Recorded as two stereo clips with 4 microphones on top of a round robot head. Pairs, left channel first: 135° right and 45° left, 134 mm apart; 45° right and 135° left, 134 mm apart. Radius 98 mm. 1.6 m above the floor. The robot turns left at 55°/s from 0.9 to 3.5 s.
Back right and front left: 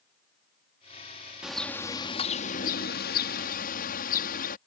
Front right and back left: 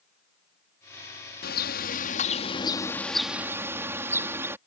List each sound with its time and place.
1.4 s a bird: 40° right; by 4.6 s 155° right